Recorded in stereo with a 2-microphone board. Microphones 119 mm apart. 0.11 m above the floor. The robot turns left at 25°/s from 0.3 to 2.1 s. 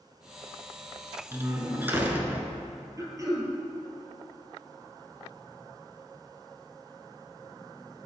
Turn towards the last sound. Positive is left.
turn(degrees=-30)  # may be behind; listen again after turning